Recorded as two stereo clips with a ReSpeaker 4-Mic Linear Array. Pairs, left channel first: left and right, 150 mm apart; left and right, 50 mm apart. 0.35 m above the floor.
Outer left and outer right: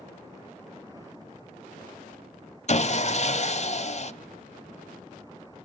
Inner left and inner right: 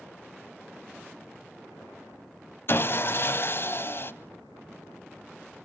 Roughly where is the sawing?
Left.